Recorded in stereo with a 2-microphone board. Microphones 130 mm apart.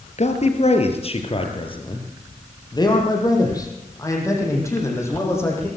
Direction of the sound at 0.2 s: 60° left (ahead or behind).